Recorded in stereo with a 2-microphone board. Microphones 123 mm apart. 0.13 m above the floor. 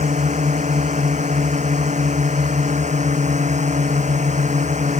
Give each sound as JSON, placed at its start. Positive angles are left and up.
{"t": 0.0, "sound": "a drone", "side_deg": -75}